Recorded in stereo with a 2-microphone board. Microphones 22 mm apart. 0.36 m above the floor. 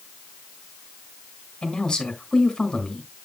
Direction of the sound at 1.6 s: 35° left (ahead or behind).